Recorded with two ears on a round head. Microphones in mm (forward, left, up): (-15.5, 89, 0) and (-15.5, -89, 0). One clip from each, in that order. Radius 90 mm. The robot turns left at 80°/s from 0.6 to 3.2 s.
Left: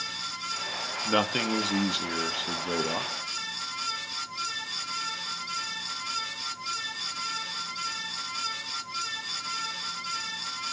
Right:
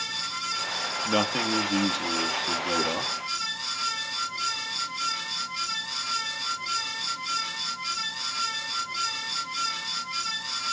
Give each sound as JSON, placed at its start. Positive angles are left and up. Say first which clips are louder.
{"t": 1.1, "sound": "a man speaking", "louder": "even", "azimuth_deg": 170, "distance_m": 1.3}